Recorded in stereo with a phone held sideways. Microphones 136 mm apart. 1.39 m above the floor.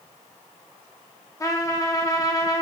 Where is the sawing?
No sawing in this recording.